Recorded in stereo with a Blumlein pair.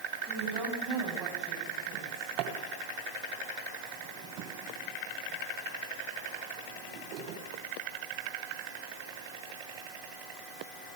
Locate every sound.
0.3 s a woman speaking: 25° right, 9.5 m
1.9 s a drawer: 40° right, 3 m